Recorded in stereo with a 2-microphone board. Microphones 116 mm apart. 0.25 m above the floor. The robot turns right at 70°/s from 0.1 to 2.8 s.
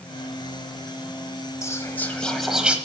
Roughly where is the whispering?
Behind left.